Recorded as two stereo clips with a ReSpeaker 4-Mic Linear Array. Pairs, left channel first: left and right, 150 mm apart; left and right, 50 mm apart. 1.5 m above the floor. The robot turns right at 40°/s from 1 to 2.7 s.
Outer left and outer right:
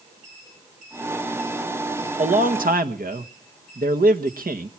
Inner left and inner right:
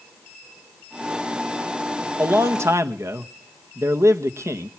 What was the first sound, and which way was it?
A man speaking, 55° right (ahead or behind).